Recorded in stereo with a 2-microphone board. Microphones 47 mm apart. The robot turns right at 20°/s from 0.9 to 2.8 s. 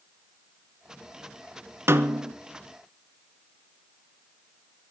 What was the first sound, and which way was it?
A snare drum, 65° right (ahead or behind).